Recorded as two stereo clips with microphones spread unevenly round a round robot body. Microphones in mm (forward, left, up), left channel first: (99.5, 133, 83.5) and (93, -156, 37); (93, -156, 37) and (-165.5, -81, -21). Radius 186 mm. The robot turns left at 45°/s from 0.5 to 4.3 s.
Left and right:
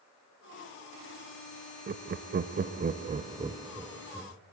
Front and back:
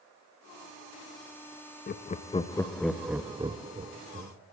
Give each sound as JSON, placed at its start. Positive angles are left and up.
{"t": 1.9, "sound": "laughter", "azimuth_deg": -75, "distance_m": 0.6}